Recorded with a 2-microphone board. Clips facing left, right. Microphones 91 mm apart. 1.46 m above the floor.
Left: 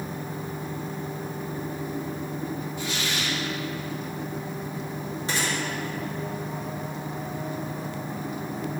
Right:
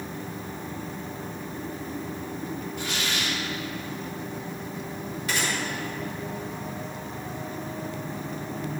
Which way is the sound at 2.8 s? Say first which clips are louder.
Right 1 dB; 65° right (ahead or behind).